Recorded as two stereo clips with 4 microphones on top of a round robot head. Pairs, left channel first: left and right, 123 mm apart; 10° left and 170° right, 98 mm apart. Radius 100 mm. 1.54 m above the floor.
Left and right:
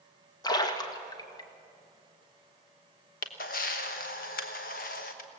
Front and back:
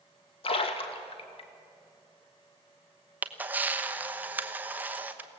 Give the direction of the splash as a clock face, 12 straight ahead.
11 o'clock.